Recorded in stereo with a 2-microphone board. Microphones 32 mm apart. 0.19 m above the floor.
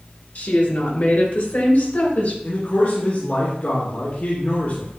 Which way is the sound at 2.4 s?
55° left (ahead or behind).